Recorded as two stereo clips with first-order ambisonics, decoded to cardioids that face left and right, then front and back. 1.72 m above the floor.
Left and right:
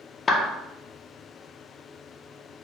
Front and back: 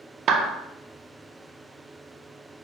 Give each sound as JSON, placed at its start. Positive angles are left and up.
{"t": 0.3, "sound": "a clap", "azimuth_deg": 150, "distance_m": 0.5}